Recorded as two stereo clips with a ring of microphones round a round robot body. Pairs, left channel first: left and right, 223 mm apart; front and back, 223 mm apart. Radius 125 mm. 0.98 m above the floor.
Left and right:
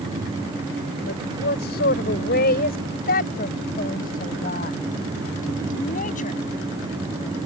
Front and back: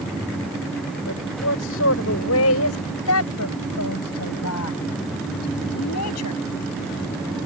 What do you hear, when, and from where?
1.1 s a woman speaking: 40° left; by 6.4 s 30° left